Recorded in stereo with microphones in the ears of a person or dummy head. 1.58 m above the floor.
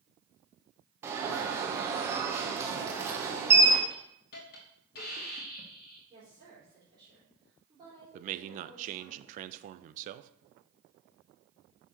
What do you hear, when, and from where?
1.0 s an alarm: 10° right (ahead or behind), 0.8 m
3.9 s a hiss: 55° left (ahead or behind), 1.3 m
6.1 s a woman speaking: 20° right (ahead or behind), 3.5 m
8.1 s a man speaking: 45° right (ahead or behind), 0.5 m